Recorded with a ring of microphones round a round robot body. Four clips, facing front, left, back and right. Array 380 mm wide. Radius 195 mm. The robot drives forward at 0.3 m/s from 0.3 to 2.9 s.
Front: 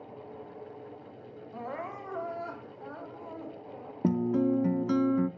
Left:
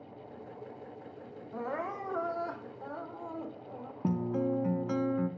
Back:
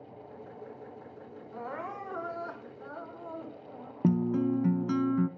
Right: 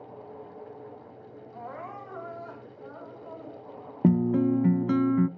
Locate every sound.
1.5 s crying: 100° left, 2.0 m; by 3.9 s 115° left, 2 m
4.0 s a guitar: 95° right, 0.5 m